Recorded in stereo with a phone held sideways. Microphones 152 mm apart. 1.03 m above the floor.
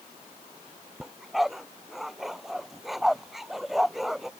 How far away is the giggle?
I don't hear a giggle.